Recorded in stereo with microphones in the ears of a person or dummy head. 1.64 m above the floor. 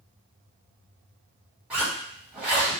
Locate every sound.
1.7 s a zipper: 10° right (ahead or behind), 1.3 m